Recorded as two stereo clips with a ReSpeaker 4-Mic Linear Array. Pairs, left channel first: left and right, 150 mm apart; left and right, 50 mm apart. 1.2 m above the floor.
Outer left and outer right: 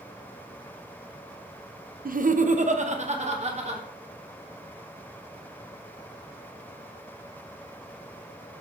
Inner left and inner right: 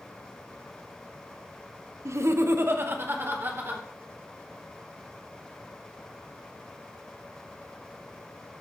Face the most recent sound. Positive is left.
turn(degrees=-45)  # may be behind; listen again after turning